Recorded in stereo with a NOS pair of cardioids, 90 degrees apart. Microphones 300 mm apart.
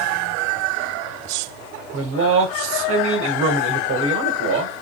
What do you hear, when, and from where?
1.9 s a man speaking: 65° right, 1.6 m